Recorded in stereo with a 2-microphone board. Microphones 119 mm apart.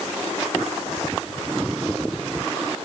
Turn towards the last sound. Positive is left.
No sound to turn to.